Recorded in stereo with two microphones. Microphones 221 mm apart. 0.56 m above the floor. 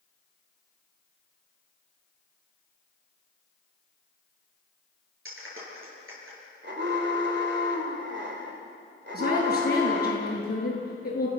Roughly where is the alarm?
Right.